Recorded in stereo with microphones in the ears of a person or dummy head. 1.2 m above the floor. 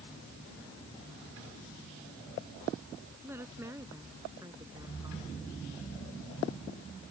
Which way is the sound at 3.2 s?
20° right (ahead or behind).